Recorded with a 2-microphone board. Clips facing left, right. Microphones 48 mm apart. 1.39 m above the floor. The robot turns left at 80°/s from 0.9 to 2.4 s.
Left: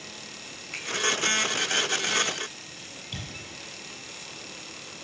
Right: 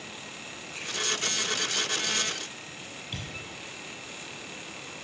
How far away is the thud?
About 7.5 m.